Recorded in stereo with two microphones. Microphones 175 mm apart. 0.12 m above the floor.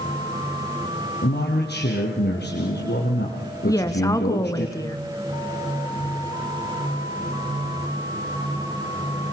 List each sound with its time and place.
1.2 s a man speaking: 70° left (ahead or behind), 5 m
3.6 s a woman speaking: 20° left (ahead or behind), 1.3 m